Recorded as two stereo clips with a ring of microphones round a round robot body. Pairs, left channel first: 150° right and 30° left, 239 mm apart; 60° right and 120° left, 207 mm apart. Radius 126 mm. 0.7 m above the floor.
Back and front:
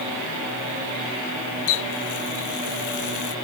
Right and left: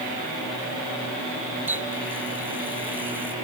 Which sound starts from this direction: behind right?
A running tap, at 1.7 s.